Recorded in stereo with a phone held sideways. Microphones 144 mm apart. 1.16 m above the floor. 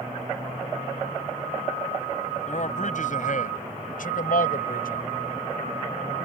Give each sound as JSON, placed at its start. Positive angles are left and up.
{"t": 2.5, "sound": "a man speaking", "side_deg": 60}